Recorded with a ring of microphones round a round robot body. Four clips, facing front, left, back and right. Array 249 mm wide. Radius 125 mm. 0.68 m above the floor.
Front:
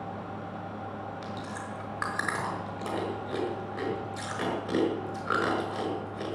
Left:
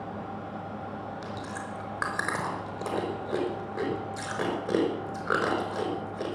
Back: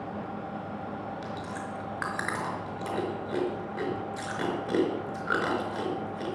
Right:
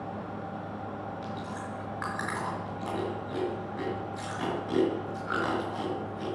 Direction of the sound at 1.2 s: 105° left.